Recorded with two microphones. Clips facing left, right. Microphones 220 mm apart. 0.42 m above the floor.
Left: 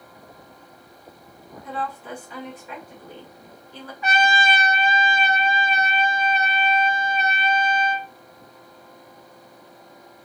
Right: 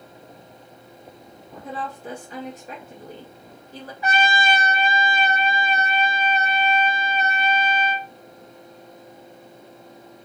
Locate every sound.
1.6 s a woman speaking: 40° right (ahead or behind), 1.8 m
4.0 s a trumpet: 30° right (ahead or behind), 3 m